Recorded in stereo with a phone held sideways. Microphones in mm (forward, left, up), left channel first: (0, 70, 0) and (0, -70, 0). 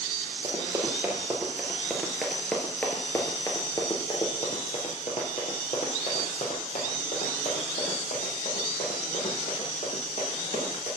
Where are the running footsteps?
25° right (ahead or behind), 2.5 m; by 10.9 s 65° left (ahead or behind), 5 m.